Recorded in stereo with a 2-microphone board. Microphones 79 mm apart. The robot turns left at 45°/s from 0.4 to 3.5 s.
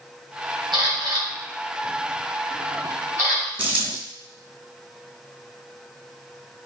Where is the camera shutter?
80° right, 2 m; by 3.5 s 45° left (ahead or behind), 2 m.